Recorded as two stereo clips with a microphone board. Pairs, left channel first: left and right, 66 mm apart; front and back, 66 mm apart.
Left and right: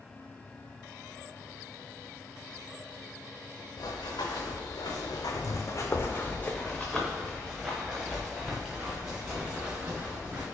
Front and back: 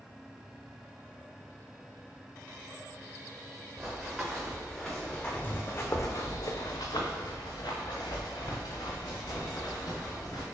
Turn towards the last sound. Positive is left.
turn(degrees=-25)